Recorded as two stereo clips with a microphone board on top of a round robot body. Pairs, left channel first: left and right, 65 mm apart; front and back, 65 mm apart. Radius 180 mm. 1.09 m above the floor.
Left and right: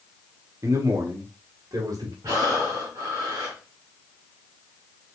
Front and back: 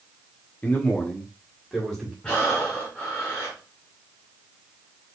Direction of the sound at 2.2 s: 70° right.